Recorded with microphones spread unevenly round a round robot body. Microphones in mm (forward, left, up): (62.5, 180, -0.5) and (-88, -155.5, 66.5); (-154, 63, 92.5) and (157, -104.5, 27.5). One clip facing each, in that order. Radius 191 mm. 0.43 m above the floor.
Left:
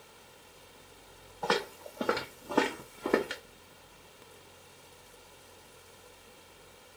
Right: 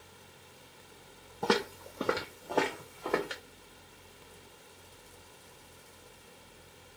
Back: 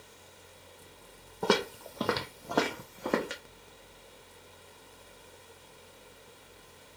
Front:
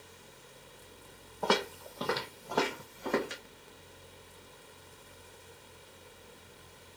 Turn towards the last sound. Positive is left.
turn(degrees=125)